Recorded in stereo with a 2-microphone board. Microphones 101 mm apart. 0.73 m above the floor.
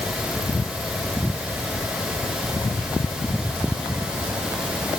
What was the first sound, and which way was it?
Only background noise.